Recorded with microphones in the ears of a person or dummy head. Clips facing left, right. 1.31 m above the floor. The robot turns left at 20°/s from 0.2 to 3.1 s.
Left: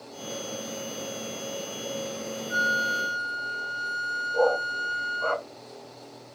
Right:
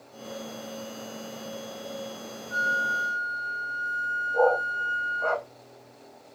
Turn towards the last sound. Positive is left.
turn(degrees=-5)  # may be behind; listen again after turning